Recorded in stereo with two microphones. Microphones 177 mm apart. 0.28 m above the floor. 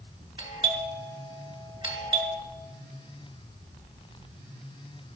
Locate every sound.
0.4 s a doorbell: 30° right (ahead or behind), 1.5 m